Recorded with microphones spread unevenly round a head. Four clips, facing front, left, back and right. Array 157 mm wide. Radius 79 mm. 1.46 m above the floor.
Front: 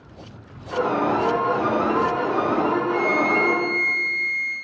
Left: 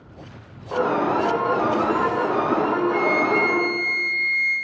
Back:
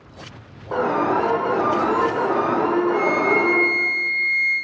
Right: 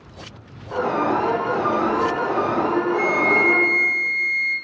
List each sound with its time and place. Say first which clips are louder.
0.7 s an alarm: even, back 1 dB; 160° left, 3 m
2.9 s a flute: even, back 2 dB; 130° left, 2.5 m